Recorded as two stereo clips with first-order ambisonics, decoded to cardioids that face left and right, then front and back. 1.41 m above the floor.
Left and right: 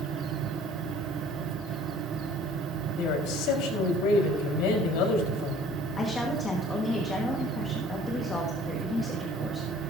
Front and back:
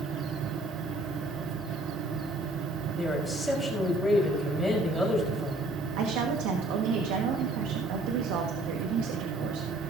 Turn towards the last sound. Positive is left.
turn(degrees=165)